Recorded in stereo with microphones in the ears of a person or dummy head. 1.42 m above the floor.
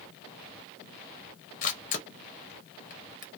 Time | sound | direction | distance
1.6 | a camera shutter | 40° left (ahead or behind) | 0.8 m